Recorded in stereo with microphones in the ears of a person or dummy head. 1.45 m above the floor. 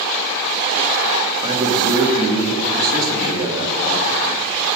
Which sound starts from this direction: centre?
A man speaking, at 1.4 s.